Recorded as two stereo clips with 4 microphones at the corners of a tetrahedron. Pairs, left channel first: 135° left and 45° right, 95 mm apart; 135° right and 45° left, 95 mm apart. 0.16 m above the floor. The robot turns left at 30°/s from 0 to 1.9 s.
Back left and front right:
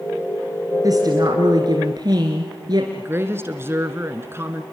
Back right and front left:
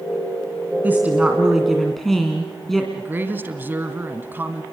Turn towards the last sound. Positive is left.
turn(degrees=-5)